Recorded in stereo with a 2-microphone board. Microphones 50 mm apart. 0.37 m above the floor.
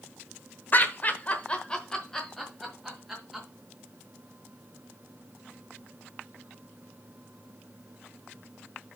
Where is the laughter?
40° left (ahead or behind), 1.0 m; by 3.5 s 5° right (ahead or behind), 2.5 m.